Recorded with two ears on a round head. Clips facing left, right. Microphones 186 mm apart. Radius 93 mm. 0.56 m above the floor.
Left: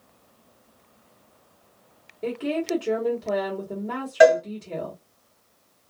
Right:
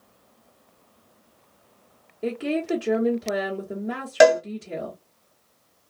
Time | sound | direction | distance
2.2 | a woman speaking | 10° right (ahead or behind) | 1.2 m
4.2 | a cowbell | 55° right (ahead or behind) | 0.6 m